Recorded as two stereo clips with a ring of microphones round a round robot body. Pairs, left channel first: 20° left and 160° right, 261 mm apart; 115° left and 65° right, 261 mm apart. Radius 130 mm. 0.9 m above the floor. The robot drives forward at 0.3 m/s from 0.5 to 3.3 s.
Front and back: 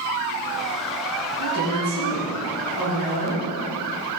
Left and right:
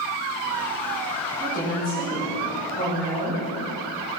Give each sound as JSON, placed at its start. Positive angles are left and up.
{"t": 1.4, "sound": "a woman speaking", "azimuth_deg": 170, "distance_m": 3.5}